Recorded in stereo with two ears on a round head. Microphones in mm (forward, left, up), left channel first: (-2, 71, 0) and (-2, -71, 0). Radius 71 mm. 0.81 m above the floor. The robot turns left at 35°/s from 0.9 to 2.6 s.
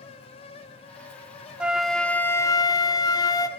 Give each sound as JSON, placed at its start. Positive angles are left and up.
{"t": 1.6, "sound": "a flute", "azimuth_deg": -170, "distance_m": 0.7}